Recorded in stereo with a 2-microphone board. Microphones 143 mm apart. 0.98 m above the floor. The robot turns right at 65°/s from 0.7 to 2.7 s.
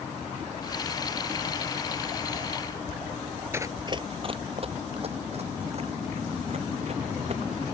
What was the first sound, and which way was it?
Running footsteps, 20° right (ahead or behind).